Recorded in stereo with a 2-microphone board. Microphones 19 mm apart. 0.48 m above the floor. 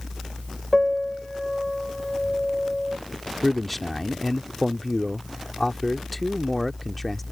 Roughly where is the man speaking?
Centre.